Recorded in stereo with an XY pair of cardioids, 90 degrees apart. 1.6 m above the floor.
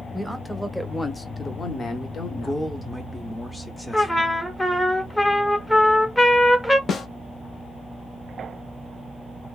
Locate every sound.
0.1 s a man speaking: 5° right, 1.0 m; by 2.7 s 70° left, 1.1 m
2.4 s a man speaking: 15° left, 0.6 m
3.9 s a trumpet: 15° left, 0.7 m
6.9 s a snare drum: 60° left, 0.6 m